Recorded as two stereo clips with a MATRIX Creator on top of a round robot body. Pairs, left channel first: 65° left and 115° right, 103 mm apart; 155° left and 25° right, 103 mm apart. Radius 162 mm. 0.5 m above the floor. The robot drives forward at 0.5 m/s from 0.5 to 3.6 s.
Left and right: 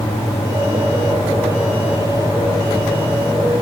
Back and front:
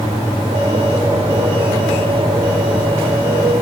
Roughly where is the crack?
No crack in this recording.